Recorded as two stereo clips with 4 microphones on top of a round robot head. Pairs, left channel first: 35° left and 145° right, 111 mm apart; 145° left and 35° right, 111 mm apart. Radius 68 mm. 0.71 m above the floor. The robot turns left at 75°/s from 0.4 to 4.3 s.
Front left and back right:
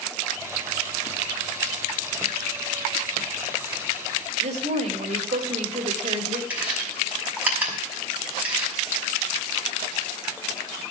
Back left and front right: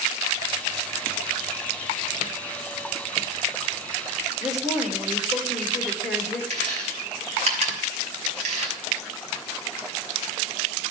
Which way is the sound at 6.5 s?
65° right.